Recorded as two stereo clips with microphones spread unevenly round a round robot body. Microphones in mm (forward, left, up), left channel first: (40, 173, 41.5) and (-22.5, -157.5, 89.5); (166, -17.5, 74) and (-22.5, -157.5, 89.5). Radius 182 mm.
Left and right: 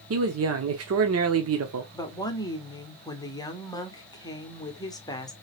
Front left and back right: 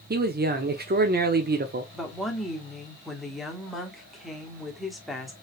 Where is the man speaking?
125° right, 0.8 m.